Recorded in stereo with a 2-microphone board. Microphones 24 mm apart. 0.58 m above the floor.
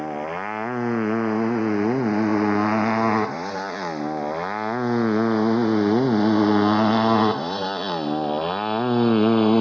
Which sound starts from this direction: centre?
A motorcycle, at 0.0 s.